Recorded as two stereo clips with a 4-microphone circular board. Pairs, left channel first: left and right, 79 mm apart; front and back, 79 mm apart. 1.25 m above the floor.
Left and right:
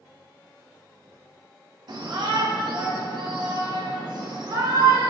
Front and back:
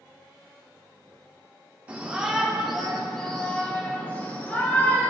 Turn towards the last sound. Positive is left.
turn(degrees=-65)